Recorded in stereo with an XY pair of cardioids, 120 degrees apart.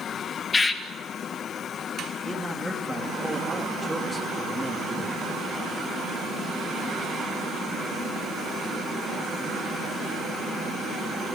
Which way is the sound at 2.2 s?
5° right.